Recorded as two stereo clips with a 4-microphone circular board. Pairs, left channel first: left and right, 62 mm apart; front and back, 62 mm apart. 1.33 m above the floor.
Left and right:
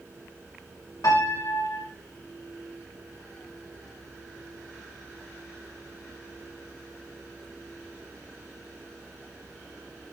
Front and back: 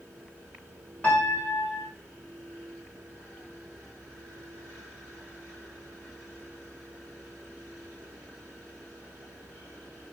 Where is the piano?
65° left, 3 m.